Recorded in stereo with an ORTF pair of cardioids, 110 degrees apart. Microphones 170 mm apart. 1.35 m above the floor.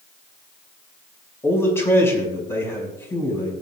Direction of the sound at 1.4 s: 15° left.